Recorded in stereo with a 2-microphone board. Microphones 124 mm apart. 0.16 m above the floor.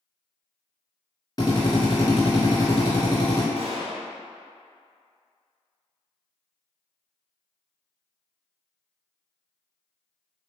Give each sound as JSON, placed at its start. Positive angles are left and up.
{"t": 1.4, "sound": "a drill", "side_deg": 35, "distance_m": 1.2}
{"t": 3.6, "sound": "a gunshot", "side_deg": -55, "distance_m": 1.4}